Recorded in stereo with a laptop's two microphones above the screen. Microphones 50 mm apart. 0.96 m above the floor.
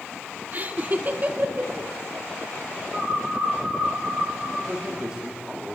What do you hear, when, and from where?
0.5 s laughter: 40° right (ahead or behind), 2 m
2.9 s a bird: 20° right (ahead or behind), 5.5 m
4.6 s a man speaking: 15° right (ahead or behind), 2 m